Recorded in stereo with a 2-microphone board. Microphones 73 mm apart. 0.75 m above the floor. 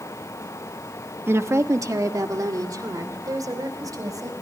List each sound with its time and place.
1.3 s a woman speaking: 35° right (ahead or behind), 0.9 m; by 4.3 s 60° right (ahead or behind), 4.5 m